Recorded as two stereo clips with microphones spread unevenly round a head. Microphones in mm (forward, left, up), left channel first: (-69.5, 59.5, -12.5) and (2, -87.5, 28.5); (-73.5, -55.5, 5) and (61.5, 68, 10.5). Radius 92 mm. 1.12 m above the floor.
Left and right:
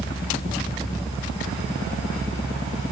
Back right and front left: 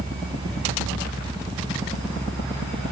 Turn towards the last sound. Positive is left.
No sound to turn to.